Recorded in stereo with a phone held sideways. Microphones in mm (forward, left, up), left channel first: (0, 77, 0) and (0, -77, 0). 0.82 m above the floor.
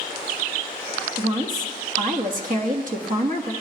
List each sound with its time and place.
1.2 s a woman speaking: 60° right (ahead or behind), 1.2 m